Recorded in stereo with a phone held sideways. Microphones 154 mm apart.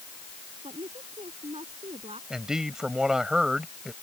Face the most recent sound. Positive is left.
turn(degrees=-5)  # may be behind; listen again after turning